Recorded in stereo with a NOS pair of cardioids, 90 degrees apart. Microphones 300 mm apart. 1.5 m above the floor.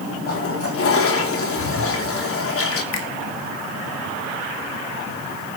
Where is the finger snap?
65° left, 3 m.